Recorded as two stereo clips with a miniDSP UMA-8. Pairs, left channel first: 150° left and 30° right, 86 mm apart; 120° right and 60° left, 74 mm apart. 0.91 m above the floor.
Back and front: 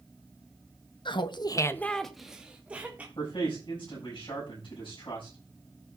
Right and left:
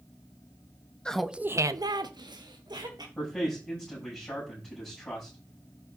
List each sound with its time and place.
1.1 s laughter: 160° left, 0.8 m; by 3.0 s 40° left, 1.9 m
3.1 s a man speaking: 160° left, 7.5 m